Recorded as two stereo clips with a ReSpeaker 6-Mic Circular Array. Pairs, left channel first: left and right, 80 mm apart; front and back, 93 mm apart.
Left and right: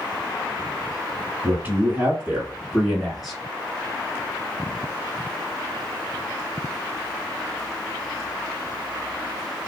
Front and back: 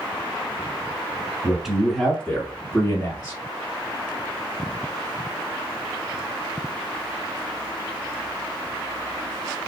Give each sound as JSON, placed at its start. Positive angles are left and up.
{"t": 1.4, "sound": "a man speaking", "azimuth_deg": -110, "distance_m": 1.5}